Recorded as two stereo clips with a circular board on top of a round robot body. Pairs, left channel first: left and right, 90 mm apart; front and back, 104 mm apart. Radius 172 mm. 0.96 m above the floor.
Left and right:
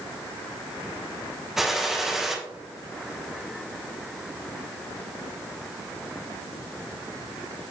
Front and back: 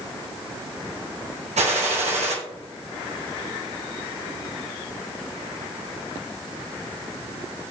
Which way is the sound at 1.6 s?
175° right.